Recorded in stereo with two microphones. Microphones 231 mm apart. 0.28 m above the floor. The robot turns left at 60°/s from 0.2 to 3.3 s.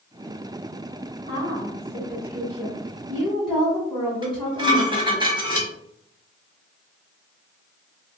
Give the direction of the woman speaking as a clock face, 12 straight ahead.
2 o'clock.